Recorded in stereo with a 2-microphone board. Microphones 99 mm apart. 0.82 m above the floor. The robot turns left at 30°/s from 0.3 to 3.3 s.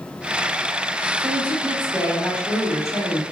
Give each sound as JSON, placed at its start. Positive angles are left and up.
{"t": 1.2, "sound": "a woman speaking", "azimuth_deg": -125, "distance_m": 1.9}